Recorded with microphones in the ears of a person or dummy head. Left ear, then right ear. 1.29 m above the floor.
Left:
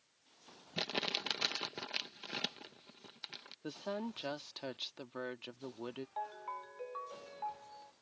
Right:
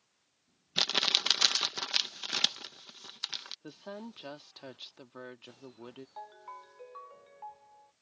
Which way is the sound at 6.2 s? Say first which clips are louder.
Left 4 dB; 5° left (ahead or behind).